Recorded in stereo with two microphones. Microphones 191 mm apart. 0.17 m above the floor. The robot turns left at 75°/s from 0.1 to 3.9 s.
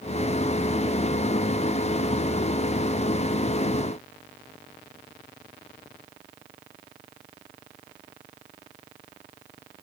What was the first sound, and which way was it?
Only background noise.